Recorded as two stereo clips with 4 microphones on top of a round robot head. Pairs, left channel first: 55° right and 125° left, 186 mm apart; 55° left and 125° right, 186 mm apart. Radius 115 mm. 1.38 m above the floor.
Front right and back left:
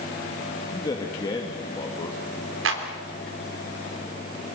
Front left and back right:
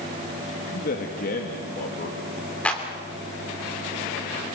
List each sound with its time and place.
0.7 s a man speaking: 15° left, 2 m
2.6 s a clap: 140° left, 3 m